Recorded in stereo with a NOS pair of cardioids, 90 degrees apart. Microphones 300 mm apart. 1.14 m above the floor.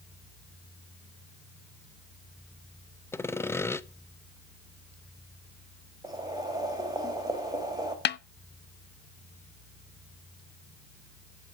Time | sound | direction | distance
3.1 | sawing | 10° left | 0.6 m
6.0 | boiling | 10° right | 3.5 m
8.1 | a snare drum | 35° left | 0.5 m